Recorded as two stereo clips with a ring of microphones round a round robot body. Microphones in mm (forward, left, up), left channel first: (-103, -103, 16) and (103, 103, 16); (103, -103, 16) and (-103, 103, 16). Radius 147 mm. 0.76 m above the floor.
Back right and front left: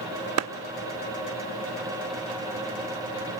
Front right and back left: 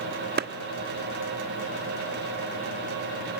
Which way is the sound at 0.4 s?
80° left.